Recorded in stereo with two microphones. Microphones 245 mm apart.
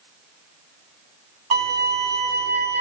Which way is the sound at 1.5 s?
40° right (ahead or behind).